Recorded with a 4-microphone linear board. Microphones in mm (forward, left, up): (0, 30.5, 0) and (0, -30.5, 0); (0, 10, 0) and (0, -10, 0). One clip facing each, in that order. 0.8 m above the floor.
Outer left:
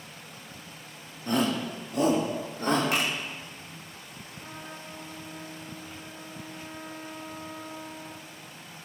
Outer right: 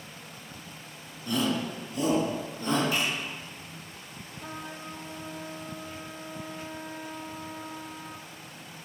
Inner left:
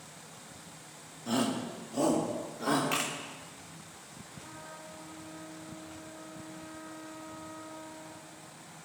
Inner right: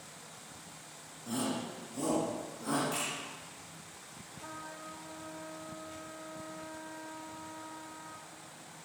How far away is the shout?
About 1.5 m.